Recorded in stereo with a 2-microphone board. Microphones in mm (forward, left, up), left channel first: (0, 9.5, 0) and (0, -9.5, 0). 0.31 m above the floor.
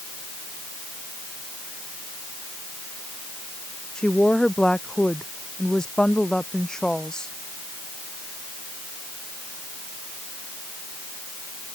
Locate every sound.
4.0 s a woman speaking: 40° left (ahead or behind)